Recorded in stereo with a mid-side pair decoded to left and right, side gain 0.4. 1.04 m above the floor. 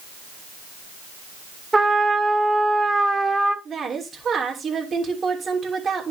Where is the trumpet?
25° right, 1.5 m.